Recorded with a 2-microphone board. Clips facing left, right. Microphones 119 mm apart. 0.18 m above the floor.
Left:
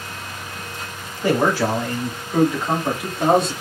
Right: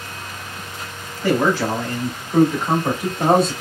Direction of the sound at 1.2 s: 20° left (ahead or behind).